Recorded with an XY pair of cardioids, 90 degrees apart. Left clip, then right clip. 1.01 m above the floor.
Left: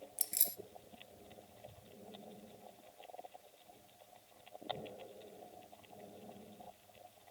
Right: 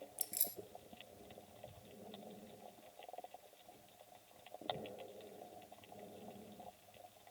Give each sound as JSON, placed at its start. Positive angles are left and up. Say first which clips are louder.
{"t": 0.2, "sound": "keys jangling", "louder": "left 6 dB", "azimuth_deg": 40, "distance_m": 0.6}